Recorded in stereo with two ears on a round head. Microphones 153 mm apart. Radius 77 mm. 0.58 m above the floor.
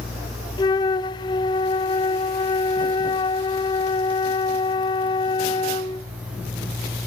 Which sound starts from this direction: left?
A flute, at 0.6 s.